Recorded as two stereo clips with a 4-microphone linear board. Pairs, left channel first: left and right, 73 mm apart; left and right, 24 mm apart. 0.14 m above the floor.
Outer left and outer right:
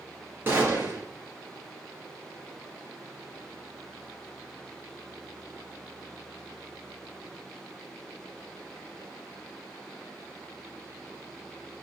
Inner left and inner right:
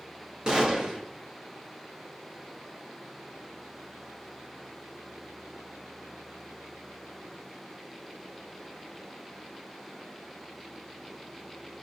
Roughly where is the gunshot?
Right.